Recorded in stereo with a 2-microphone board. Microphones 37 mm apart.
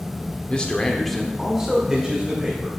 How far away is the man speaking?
About 1.0 m.